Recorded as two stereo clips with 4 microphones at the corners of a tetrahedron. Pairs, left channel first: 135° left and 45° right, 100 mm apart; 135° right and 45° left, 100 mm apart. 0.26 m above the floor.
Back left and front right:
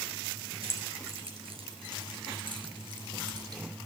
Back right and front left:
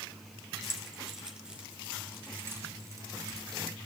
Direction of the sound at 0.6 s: 45° right.